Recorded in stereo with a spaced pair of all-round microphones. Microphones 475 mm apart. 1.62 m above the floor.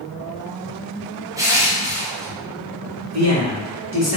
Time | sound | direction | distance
1.4 | crushing | 5° right (ahead or behind) | 0.6 m
3.1 | a man speaking | 30° right (ahead or behind) | 1.3 m